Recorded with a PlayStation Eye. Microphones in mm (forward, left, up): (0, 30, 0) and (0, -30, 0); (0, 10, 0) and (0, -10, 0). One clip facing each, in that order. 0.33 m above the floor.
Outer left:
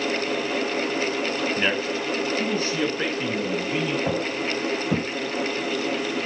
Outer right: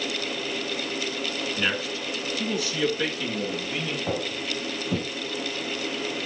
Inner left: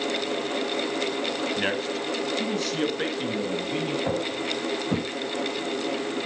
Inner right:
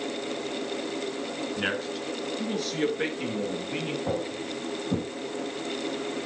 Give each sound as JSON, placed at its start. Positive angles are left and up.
{"t": 1.6, "sound": "a man speaking", "side_deg": 35, "distance_m": 2.0}
{"t": 4.1, "sound": "footsteps", "side_deg": 80, "distance_m": 5.5}